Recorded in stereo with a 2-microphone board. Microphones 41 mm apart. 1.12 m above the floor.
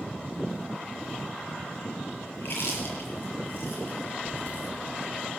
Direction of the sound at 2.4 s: 60° left (ahead or behind).